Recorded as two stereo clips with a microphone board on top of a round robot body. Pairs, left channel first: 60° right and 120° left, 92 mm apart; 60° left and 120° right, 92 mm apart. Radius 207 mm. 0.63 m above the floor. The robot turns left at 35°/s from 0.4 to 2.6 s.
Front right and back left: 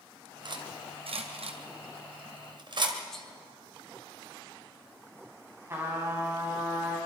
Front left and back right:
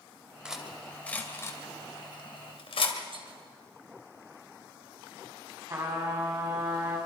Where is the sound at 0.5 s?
160° left, 2.5 m; by 3.0 s 80° left, 2.5 m.